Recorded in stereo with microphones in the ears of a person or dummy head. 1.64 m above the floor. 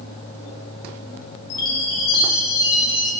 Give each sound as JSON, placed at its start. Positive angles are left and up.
{"t": 1.5, "sound": "a chime", "side_deg": 60, "distance_m": 1.3}